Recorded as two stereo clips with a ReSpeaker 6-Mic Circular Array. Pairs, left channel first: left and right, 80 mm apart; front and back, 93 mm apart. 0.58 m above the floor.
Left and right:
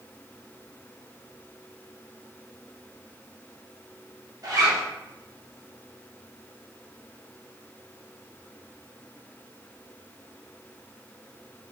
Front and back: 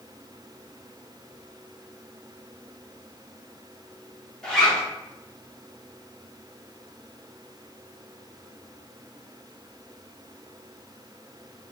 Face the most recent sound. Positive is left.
turn(degrees=-80)